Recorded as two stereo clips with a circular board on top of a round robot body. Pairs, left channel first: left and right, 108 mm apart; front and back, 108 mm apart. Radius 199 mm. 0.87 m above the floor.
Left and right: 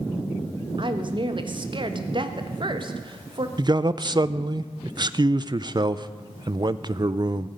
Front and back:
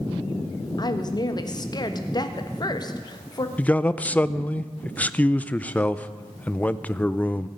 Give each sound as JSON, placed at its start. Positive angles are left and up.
{"t": 0.8, "sound": "a woman speaking", "azimuth_deg": -50, "distance_m": 1.4}
{"t": 3.6, "sound": "a man speaking", "azimuth_deg": -70, "distance_m": 0.7}